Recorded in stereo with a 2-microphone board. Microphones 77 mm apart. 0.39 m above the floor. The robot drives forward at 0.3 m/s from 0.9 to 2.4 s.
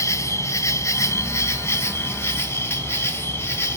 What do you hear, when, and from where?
0.0 s an insect: 35° left (ahead or behind), 1.7 m; by 3.8 s 30° left (ahead or behind), 2 m